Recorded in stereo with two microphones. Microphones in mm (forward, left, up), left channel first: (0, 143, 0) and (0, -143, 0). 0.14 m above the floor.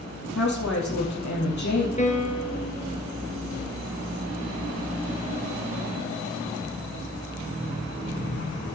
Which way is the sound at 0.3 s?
70° left (ahead or behind).